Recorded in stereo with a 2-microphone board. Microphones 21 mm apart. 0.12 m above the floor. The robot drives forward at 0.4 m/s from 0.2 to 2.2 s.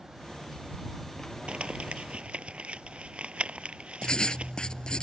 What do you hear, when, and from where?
1.5 s crumpling: 60° right (ahead or behind)
4.0 s writing: 40° left (ahead or behind)